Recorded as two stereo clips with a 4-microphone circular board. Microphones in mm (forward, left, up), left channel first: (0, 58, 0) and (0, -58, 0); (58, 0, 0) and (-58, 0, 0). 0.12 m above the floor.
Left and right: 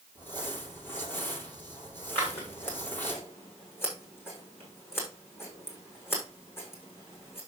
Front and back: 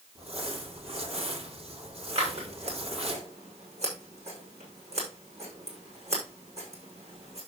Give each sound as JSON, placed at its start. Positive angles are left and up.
{"t": 0.1, "sound": "crumpling", "azimuth_deg": 160, "distance_m": 4.0}
{"t": 2.1, "sound": "scissors", "azimuth_deg": 160, "distance_m": 7.0}